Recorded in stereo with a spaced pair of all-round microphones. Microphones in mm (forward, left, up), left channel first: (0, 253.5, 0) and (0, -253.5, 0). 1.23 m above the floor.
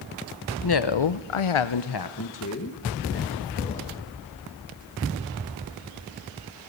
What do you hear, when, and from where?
0.6 s a woman speaking: 45° left (ahead or behind), 0.7 m; by 3.9 s 20° left (ahead or behind), 2 m